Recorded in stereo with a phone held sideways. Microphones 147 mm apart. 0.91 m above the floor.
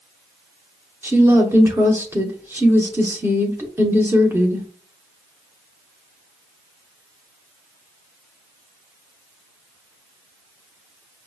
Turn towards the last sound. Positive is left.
turn(degrees=-15)  # may be behind; listen again after turning